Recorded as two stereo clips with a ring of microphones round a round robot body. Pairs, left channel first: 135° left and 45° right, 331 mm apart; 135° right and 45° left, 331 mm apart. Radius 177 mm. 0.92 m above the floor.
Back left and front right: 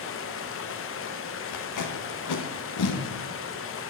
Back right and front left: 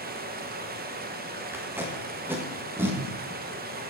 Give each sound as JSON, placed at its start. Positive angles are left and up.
{"t": 0.0, "sound": "running water", "azimuth_deg": 100, "distance_m": 0.8}
{"t": 1.5, "sound": "tape being pulled", "azimuth_deg": 125, "distance_m": 1.3}